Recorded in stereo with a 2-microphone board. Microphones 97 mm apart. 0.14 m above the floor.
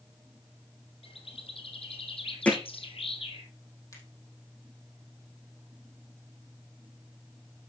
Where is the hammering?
15° left (ahead or behind), 3.5 m.